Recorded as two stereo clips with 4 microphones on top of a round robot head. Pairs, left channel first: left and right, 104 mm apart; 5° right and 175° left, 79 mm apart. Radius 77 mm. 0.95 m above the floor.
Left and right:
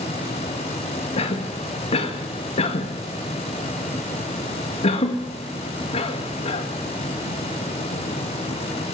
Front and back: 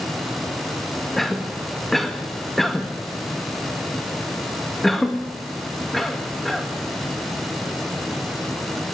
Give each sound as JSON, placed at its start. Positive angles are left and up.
{"t": 1.2, "sound": "a cough", "azimuth_deg": 85, "distance_m": 1.7}